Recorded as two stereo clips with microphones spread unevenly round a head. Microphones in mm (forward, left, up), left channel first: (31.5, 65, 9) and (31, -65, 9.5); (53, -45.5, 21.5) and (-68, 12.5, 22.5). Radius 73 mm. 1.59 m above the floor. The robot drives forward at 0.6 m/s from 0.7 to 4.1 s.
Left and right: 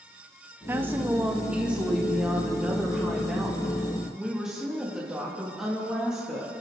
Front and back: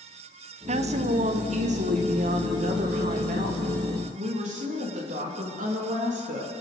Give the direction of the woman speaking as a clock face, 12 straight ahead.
6 o'clock.